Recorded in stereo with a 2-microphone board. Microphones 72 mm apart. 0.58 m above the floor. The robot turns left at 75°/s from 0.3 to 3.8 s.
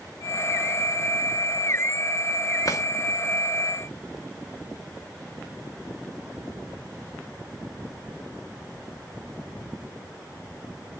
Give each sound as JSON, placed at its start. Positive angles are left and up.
{"t": 2.6, "sound": "a drawer", "side_deg": 55, "distance_m": 1.0}